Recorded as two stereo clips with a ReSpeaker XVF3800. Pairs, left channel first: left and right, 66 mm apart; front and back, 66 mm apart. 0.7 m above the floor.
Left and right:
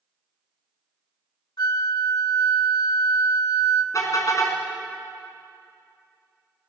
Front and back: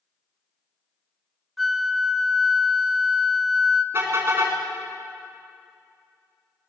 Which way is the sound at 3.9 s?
125° left.